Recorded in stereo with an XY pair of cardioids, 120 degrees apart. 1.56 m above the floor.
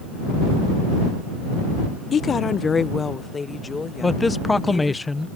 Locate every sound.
2.1 s a woman speaking: 40° left; by 5.0 s 20° left
4.0 s a man speaking: 15° left